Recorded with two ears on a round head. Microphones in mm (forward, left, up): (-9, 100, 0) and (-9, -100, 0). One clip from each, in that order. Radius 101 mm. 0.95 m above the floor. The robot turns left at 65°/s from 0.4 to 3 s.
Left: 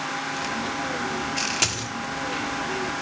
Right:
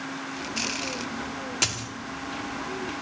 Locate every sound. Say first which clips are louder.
1.6 s a dropped coin: right 3 dB; centre (ahead or behind), 0.9 m; by 1.9 s 15° left (ahead or behind), 0.9 m